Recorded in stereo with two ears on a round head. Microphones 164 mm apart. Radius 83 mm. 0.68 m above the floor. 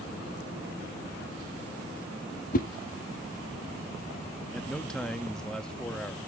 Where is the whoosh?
45° left (ahead or behind), 0.6 m.